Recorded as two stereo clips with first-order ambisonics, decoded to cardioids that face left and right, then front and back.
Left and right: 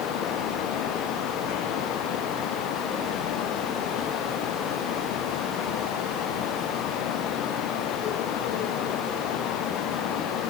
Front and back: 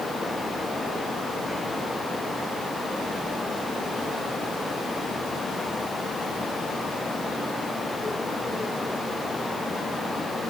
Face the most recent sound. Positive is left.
No sound to turn to.